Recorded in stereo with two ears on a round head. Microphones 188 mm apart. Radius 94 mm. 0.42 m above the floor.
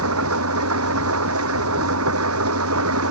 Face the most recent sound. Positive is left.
turn(degrees=-80)